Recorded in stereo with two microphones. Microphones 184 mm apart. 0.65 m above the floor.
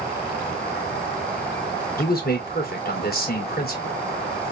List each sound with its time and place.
2.0 s a man speaking: 55° left (ahead or behind), 2 m